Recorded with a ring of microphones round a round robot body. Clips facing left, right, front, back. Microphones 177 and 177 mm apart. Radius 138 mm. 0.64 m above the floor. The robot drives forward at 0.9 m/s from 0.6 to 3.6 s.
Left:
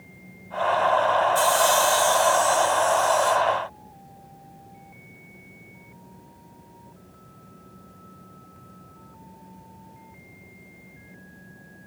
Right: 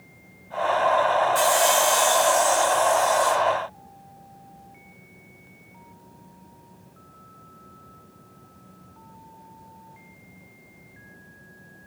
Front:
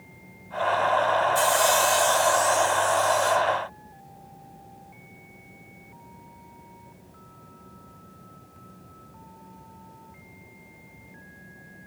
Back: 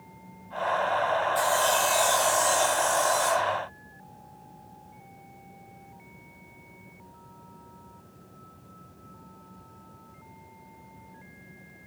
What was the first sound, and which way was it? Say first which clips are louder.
Sawing: even, front 3 dB; 30° right.